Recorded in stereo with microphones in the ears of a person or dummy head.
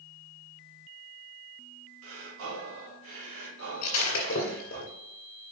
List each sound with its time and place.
2.0 s breathing: 75° right (ahead or behind), 1.9 m
3.8 s breaking glass: 40° left (ahead or behind), 1.8 m